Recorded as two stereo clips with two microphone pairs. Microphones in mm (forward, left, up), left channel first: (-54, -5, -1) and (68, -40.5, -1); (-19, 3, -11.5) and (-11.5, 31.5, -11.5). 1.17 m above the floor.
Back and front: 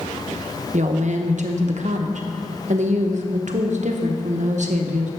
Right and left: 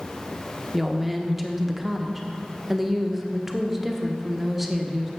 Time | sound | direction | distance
0.7 | a woman speaking | 5° right | 0.9 m